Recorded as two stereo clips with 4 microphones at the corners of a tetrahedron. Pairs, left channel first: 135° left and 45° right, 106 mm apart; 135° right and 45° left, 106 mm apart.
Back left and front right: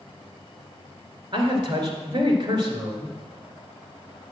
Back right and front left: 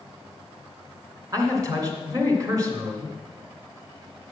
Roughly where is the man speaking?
Ahead.